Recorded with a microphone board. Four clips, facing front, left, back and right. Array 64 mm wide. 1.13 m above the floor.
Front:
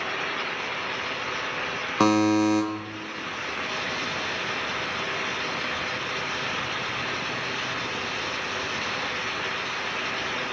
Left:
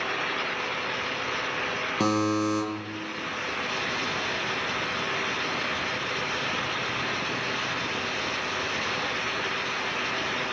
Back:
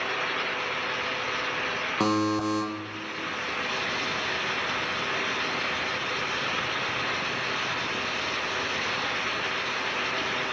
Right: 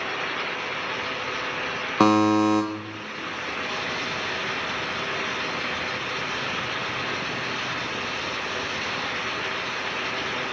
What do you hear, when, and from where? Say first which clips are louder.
2.0 s a buzzer: right 7 dB, front 6 dB; 70° right, 0.8 m